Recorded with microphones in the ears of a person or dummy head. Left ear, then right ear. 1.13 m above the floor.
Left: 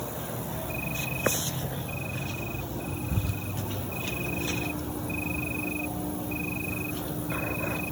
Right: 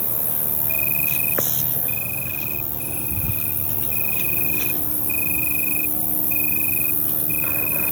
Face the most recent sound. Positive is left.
turn(degrees=-50)  # may be behind; listen again after turning